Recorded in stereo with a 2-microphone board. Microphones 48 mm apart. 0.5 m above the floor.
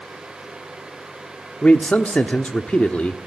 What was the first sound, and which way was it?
A man speaking, 25° left (ahead or behind).